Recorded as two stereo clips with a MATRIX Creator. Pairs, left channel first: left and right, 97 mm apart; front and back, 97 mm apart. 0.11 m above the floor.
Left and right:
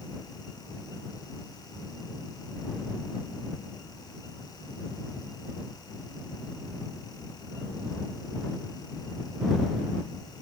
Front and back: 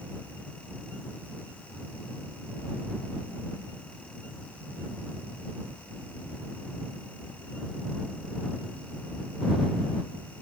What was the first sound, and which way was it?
Only background noise.